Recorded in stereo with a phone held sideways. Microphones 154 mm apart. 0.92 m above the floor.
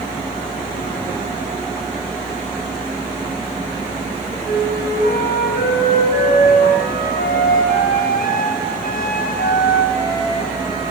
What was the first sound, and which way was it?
A flute, 75° left (ahead or behind).